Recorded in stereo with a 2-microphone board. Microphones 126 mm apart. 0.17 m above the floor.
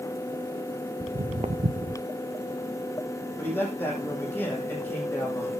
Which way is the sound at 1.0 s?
55° right (ahead or behind).